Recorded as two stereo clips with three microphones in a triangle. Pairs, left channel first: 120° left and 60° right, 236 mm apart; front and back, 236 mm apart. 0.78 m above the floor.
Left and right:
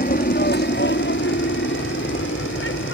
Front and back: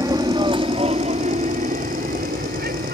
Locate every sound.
0.0 s an aircraft: 110° left; by 3.0 s 140° left